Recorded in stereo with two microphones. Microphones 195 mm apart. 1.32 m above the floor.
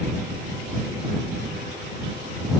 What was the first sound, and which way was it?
Only background noise.